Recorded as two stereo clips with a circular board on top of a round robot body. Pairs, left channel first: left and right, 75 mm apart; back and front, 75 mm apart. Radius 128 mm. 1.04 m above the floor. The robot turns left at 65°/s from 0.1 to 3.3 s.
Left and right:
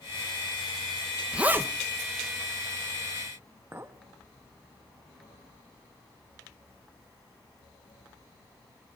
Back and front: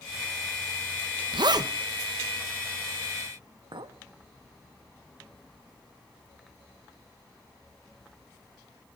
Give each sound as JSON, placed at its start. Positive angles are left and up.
{"t": 1.3, "sound": "a zipper", "azimuth_deg": -10, "distance_m": 1.0}
{"t": 3.7, "sound": "a clink", "azimuth_deg": -25, "distance_m": 0.9}